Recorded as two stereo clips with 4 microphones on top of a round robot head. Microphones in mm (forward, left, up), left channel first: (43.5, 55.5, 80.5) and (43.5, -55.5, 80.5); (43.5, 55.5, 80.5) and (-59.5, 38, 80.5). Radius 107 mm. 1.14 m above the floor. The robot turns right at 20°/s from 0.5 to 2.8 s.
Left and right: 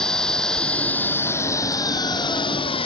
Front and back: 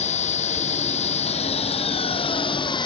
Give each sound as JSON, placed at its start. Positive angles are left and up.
{"t": 0.0, "sound": "an engine running", "azimuth_deg": 5}